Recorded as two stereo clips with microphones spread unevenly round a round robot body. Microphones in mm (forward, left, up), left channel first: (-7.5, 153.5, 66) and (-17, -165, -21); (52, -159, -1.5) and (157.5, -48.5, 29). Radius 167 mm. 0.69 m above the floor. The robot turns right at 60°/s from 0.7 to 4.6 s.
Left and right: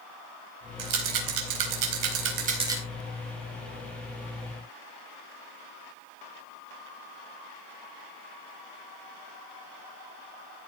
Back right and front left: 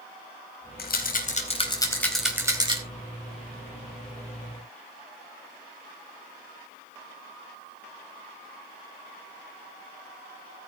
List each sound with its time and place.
0.8 s a rattle: 130° right, 3.5 m; by 2.8 s 10° right, 3.5 m